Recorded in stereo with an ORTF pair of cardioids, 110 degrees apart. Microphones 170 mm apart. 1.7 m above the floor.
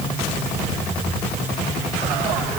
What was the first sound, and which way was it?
Only background noise.